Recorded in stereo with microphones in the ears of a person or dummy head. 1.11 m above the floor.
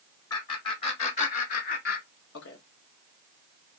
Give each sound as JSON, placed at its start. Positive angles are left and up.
{"t": 0.3, "sound": "laughter", "side_deg": 25, "distance_m": 1.5}